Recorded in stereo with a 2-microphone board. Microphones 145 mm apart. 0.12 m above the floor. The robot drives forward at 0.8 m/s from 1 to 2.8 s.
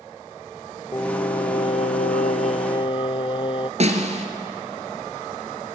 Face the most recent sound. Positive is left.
turn(degrees=-50)  # may be behind; listen again after turning